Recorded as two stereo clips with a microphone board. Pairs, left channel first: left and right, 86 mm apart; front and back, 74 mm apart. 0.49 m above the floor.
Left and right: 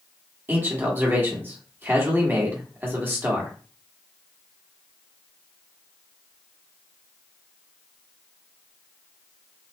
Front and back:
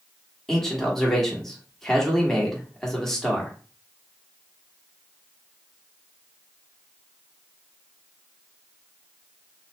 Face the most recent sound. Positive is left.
turn(degrees=-75)